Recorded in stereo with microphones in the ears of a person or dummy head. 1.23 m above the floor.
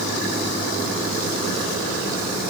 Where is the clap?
I don't hear a clap.